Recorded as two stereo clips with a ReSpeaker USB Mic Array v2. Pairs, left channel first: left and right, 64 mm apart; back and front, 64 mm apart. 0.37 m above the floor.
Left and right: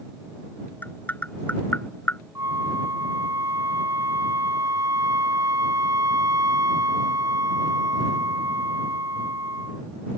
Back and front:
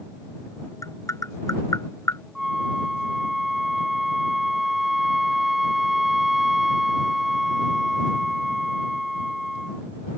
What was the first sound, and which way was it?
Tapping, 150° left.